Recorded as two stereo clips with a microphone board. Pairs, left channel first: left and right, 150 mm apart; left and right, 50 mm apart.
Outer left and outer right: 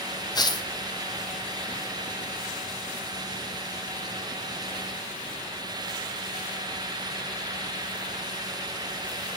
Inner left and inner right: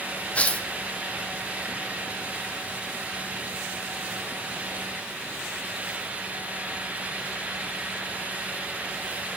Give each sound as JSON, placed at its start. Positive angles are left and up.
{"t": 0.3, "sound": "tearing paper", "side_deg": 30, "distance_m": 0.9}